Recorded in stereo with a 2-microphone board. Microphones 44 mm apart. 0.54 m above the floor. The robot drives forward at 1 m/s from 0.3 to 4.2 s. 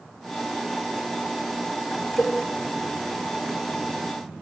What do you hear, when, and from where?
2.2 s a cowbell: 55° left (ahead or behind), 1.2 m; by 2.4 s 60° left (ahead or behind), 1.1 m